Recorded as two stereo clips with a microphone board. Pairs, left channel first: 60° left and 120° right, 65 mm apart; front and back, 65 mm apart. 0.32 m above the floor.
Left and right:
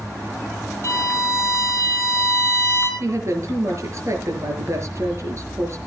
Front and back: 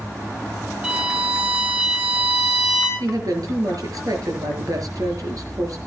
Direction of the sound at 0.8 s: 105° left.